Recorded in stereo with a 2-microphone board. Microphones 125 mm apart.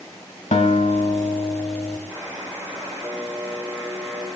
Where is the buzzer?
20° right (ahead or behind), 5 m.